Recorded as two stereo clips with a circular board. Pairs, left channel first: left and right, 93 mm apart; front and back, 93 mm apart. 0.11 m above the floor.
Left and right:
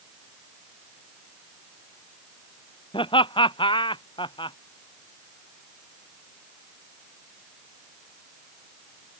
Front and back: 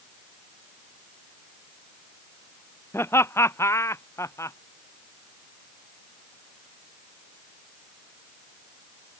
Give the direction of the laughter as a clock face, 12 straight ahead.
10 o'clock.